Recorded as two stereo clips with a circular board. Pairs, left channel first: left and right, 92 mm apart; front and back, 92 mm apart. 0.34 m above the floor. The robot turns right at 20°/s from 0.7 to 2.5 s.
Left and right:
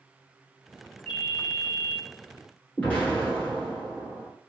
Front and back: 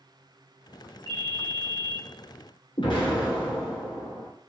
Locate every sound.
1.1 s a ringtone: 160° left, 0.8 m; by 2.0 s straight behind, 0.8 m
2.8 s an explosion: 15° left, 1.0 m